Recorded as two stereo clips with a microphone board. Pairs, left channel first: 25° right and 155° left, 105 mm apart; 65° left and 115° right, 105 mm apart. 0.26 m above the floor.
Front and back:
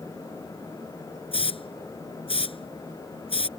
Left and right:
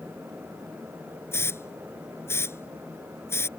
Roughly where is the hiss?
Ahead.